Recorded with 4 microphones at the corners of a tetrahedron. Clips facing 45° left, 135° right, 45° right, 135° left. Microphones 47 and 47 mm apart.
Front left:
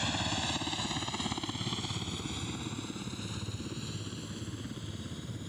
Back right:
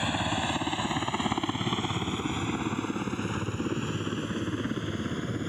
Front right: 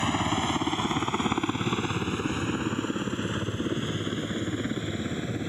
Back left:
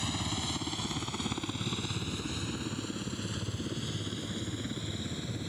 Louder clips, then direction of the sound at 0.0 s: Back right 5 dB, front right 9 dB; 75° right.